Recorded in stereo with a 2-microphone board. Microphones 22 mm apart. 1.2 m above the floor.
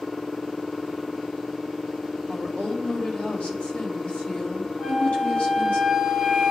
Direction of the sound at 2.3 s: 75° left (ahead or behind).